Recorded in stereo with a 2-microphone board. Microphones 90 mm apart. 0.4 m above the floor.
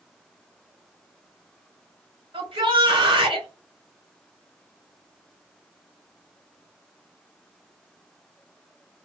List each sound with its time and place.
2.3 s a shout: 70° right (ahead or behind), 3.5 m